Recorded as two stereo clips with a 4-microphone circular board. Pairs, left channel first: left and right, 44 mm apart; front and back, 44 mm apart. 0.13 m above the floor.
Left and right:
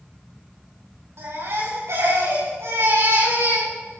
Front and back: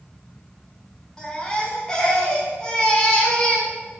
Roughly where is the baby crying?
Right.